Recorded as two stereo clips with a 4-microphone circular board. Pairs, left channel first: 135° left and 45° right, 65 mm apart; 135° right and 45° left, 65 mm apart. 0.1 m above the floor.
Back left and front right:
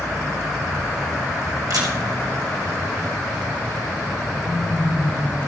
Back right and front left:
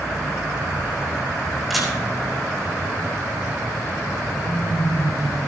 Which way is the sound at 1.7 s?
45° right.